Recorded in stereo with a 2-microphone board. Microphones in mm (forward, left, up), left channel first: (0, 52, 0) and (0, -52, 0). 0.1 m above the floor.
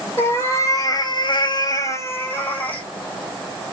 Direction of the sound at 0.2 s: 25° left (ahead or behind).